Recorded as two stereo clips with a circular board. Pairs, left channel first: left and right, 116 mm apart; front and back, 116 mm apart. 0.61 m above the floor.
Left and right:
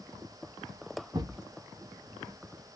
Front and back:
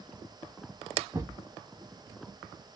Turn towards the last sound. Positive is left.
turn(degrees=-130)